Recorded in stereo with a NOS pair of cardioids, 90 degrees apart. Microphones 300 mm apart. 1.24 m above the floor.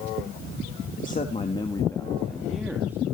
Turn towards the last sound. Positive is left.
turn(degrees=-10)